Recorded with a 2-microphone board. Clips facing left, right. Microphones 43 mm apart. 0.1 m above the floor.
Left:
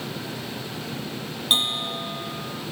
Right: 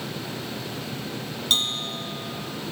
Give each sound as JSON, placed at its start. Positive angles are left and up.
{"t": 1.5, "sound": "a bell", "side_deg": 20}